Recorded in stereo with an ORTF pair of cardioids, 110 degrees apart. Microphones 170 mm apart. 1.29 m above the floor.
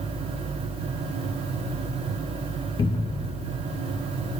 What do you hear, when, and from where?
0.0 s a fan: 35° right, 1.3 m
2.8 s a cupboard door: 30° left, 1.6 m